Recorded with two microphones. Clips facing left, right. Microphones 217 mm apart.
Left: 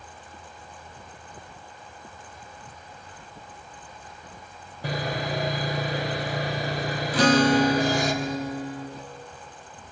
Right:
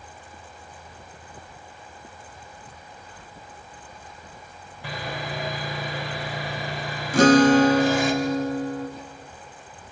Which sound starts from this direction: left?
Sawing, at 4.8 s.